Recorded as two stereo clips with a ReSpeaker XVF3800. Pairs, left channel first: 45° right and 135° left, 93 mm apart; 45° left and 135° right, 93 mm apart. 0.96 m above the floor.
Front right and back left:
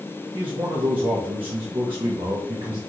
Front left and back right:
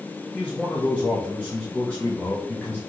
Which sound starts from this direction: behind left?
A man speaking, at 0.3 s.